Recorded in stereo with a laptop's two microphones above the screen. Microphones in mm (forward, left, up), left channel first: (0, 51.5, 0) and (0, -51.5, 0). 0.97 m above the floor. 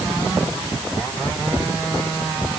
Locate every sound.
Only background noise.